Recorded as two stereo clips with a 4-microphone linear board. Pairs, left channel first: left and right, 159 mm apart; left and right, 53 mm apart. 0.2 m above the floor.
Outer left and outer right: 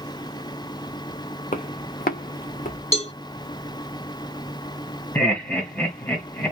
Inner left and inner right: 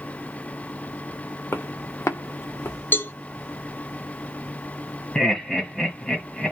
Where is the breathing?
I don't hear breathing.